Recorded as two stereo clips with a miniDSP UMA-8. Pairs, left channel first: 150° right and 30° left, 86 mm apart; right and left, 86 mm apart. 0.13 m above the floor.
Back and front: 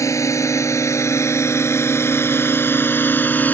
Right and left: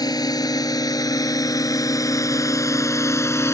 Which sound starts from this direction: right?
A drone, at 0.0 s.